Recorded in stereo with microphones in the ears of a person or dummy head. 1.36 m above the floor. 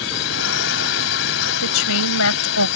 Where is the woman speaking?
75° left (ahead or behind).